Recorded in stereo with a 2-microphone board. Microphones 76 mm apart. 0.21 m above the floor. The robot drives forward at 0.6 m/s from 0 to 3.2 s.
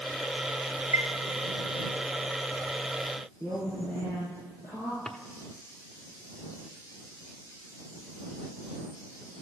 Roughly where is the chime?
Right.